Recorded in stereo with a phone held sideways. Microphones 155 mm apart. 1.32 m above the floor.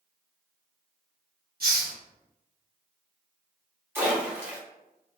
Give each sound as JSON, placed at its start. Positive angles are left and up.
{"t": 1.6, "sound": "a hiss", "side_deg": -70, "distance_m": 1.2}
{"t": 4.0, "sound": "a splash", "side_deg": -15, "distance_m": 1.3}